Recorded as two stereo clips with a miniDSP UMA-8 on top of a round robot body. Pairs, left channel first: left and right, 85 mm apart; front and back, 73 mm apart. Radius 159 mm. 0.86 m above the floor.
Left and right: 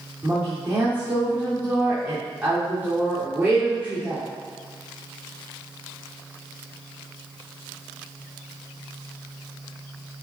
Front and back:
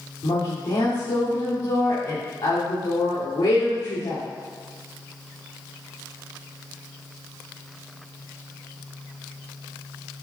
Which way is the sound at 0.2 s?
25° right.